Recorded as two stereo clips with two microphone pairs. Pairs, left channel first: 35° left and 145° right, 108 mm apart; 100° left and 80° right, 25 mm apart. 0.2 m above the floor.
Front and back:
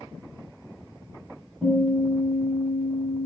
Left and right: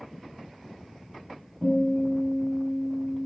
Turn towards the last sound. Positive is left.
turn(degrees=-65)